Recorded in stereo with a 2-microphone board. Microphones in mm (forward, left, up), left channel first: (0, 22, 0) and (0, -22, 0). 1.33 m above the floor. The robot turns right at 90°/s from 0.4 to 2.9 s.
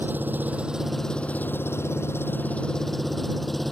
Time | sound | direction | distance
0.0 | an engine running | 50° right | ?